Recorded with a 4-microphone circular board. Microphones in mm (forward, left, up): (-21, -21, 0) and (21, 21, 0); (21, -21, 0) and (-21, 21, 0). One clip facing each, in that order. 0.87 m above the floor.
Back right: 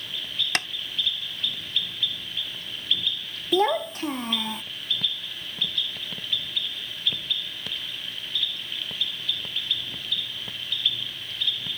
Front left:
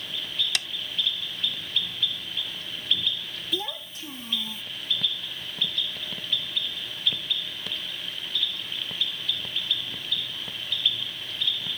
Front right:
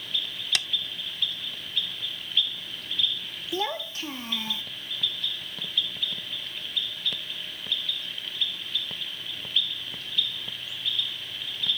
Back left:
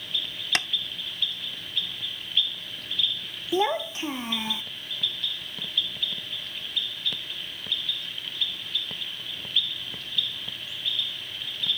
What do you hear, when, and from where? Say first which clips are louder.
0.6 s tapping: back right 8 dB, back left 4 dB; 175° right
3.5 s a child speaking: back right 13 dB, back left 6 dB; 160° right